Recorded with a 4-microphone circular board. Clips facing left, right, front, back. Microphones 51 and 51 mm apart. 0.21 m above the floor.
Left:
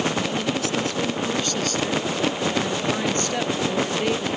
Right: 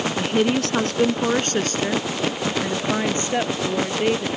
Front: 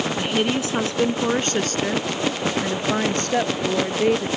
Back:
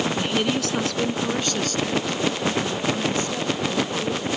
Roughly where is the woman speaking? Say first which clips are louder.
Right 4 dB, front 1 dB; right.